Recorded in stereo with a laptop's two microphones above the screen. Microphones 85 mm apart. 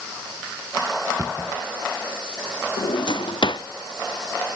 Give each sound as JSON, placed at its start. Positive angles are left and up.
{"t": 1.2, "sound": "a cupboard door", "side_deg": -35, "distance_m": 1.0}
{"t": 2.8, "sound": "a drawer", "side_deg": 65, "distance_m": 0.5}